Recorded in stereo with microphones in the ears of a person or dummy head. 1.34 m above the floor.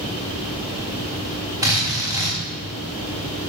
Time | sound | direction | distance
1.6 | a drill | 15° right (ahead or behind) | 4.5 m